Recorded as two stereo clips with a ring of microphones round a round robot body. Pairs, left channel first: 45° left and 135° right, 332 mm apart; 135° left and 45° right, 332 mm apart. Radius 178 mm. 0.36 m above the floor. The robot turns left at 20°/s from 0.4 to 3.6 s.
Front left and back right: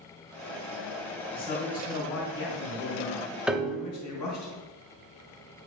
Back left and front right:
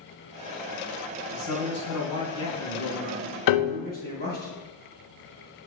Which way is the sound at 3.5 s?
140° left.